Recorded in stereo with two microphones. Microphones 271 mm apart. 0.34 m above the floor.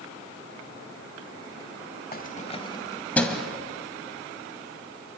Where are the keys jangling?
35° left (ahead or behind), 1.0 m; by 3.5 s centre (ahead or behind), 1.4 m.